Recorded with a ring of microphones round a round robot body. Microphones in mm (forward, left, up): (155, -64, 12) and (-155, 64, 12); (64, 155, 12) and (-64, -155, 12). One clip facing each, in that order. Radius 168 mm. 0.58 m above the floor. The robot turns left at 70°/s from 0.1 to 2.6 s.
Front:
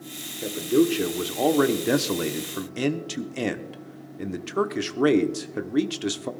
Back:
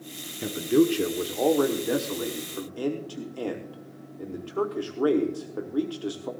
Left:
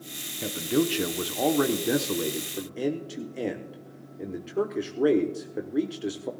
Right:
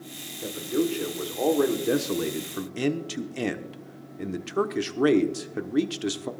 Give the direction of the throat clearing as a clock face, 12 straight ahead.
I don't hear throat clearing.